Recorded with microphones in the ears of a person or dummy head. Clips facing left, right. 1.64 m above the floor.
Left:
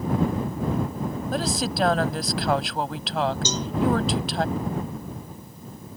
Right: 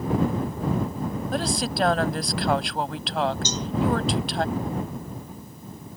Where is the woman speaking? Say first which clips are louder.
Left 1 dB; centre (ahead or behind).